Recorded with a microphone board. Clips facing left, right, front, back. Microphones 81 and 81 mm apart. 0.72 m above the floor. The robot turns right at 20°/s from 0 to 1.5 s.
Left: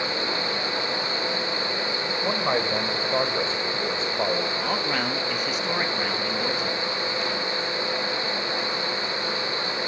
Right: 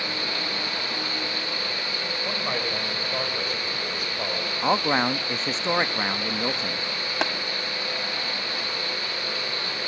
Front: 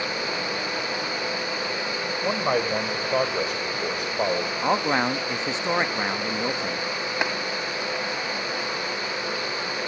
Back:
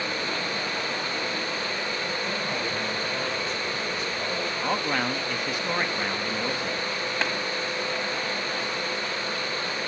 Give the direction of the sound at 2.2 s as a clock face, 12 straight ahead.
11 o'clock.